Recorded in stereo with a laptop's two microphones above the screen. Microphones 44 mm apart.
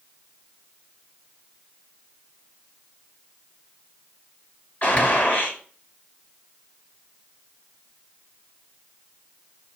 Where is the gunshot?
30° left (ahead or behind), 5 m.